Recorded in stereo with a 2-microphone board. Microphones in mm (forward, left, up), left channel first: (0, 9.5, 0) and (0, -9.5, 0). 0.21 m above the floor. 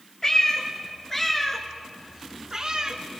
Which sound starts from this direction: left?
A cat meowing, at 0.2 s.